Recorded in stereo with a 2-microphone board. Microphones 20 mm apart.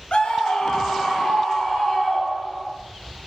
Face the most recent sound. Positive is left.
turn(degrees=55)  # may be behind; listen again after turning